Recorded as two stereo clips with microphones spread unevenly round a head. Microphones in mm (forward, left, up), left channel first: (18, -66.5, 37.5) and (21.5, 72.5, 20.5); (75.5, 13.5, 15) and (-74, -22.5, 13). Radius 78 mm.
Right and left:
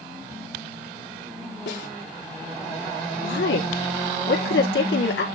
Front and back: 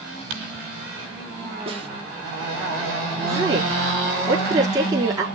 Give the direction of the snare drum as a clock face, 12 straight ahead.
4 o'clock.